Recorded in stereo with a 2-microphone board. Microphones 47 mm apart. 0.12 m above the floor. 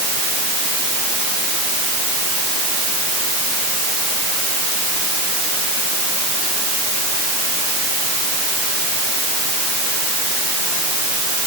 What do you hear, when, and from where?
Only background noise.